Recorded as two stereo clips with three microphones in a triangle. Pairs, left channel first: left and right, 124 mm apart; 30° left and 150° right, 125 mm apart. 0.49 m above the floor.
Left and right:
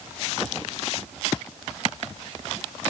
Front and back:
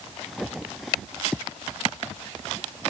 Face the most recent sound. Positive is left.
No sound to turn to.